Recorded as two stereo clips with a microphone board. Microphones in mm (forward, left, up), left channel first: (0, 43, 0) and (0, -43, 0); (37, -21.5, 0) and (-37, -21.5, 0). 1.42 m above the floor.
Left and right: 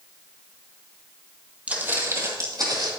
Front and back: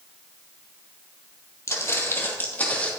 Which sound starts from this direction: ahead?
Footsteps, at 1.7 s.